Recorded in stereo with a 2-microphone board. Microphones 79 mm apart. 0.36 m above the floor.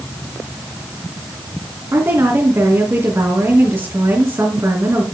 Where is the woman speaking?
40° right (ahead or behind), 4 m.